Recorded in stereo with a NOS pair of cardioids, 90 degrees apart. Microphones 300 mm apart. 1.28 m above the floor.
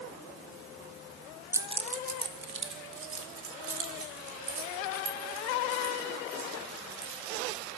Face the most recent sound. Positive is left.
turn(degrees=-60)